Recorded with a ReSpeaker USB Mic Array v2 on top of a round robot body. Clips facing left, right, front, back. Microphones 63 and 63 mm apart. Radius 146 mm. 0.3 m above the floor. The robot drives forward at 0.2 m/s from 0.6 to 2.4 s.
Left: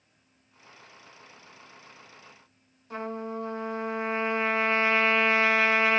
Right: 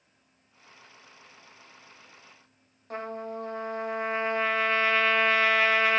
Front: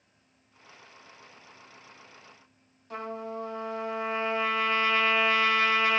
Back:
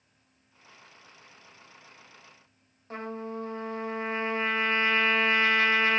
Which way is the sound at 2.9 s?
125° right.